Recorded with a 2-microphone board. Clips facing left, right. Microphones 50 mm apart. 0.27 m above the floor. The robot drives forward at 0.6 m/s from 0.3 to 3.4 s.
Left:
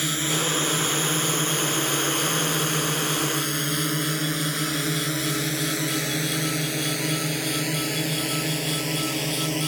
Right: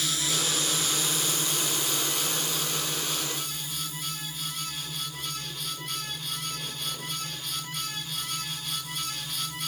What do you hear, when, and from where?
0.0 s a drone: 30° left (ahead or behind); by 9.7 s 65° left (ahead or behind)